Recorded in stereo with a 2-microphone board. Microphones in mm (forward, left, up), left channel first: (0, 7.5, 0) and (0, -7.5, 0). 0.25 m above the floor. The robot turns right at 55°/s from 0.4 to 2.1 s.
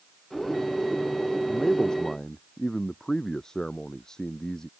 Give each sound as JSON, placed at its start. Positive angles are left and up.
{"t": 1.5, "sound": "a man speaking", "azimuth_deg": 90}